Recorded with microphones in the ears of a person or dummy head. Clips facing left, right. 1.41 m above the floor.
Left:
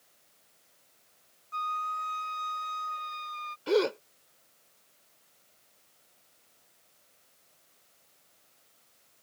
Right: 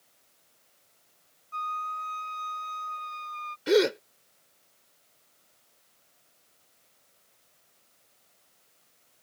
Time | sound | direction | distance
1.5 | a flute | 15° left (ahead or behind) | ?
3.7 | a gasp | 30° right (ahead or behind) | ?